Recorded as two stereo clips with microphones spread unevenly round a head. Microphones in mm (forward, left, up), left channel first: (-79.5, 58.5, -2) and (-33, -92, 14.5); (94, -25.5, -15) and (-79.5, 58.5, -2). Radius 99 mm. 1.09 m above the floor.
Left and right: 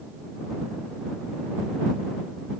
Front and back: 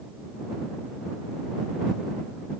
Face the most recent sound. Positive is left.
No sound to turn to.